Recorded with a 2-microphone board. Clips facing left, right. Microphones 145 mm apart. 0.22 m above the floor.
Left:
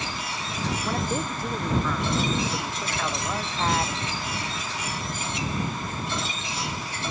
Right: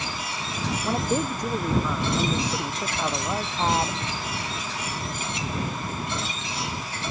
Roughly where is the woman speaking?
Centre.